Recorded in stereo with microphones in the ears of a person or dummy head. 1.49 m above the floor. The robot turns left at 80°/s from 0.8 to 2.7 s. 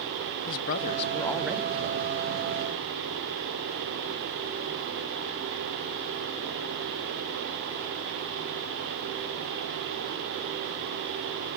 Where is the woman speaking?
50° left, 0.5 m; by 2.1 s 55° right, 0.5 m.